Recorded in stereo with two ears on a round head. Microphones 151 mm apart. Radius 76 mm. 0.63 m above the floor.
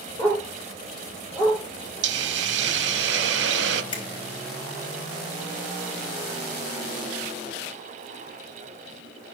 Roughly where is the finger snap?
Left.